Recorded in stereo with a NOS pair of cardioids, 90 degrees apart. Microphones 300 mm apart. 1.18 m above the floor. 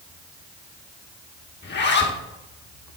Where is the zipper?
35° left, 1.5 m.